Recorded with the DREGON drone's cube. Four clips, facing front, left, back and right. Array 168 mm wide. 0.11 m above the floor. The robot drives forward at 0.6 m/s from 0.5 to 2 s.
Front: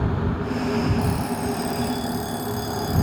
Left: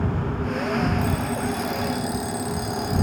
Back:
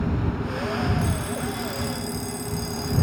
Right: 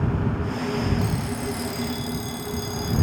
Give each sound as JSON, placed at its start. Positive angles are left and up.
{"t": 1.0, "sound": "an alarm clock", "azimuth_deg": 30}